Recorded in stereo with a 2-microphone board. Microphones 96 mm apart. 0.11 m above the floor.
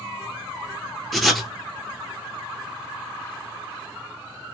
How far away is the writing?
About 1.2 m.